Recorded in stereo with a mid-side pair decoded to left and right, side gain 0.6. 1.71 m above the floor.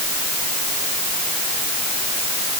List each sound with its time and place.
Only background noise.